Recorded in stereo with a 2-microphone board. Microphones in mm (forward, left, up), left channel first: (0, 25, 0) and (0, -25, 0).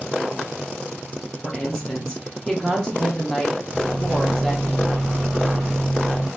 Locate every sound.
1.4 s a woman speaking: 10° left (ahead or behind), 1.2 m
3.7 s a microwave: 10° right (ahead or behind), 1.2 m